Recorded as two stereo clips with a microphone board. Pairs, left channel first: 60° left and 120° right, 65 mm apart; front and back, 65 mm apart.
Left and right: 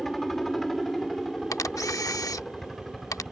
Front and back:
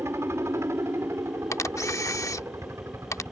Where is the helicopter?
145° left.